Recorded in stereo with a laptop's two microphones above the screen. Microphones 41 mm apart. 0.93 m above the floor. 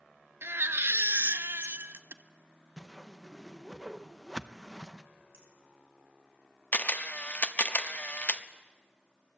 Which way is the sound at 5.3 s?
80° right.